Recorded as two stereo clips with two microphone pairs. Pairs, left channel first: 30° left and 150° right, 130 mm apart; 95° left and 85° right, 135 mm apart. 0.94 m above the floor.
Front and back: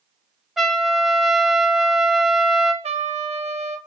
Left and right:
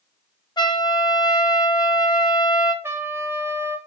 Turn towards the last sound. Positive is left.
turn(degrees=-150)